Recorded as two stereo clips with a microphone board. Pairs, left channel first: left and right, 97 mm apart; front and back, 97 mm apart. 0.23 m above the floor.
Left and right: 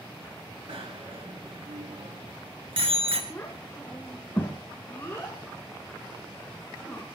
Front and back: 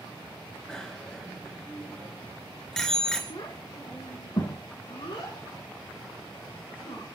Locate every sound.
0.7 s a bicycle bell: 85° right, 2 m
3.3 s a child speaking: 25° left, 2.5 m